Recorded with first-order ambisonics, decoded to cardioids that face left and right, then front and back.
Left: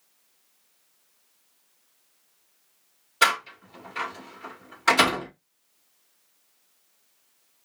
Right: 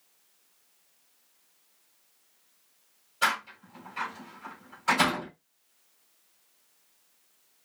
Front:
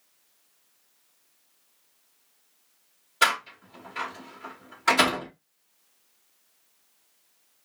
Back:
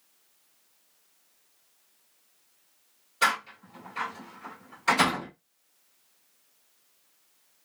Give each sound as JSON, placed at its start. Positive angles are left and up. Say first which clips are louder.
{"t": 3.2, "sound": "a door slam", "louder": "left 5 dB, front 2 dB", "azimuth_deg": 65, "distance_m": 1.8}